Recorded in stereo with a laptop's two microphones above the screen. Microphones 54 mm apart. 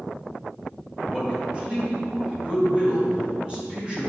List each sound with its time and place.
1.0 s a man speaking: 20° right (ahead or behind), 1.4 m